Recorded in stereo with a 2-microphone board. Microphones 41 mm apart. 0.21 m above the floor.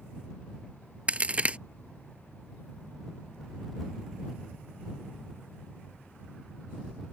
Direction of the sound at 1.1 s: 30° right (ahead or behind).